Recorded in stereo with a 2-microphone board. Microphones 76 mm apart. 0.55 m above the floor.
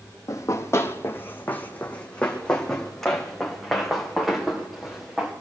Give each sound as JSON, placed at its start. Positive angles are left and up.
{"t": 0.3, "sound": "running footsteps", "side_deg": 45, "distance_m": 1.5}